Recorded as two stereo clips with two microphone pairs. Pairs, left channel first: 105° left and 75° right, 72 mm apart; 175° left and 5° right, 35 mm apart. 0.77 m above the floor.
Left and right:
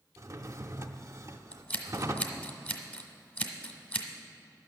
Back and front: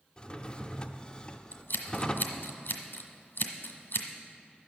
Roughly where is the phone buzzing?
No phone buzzing in this recording.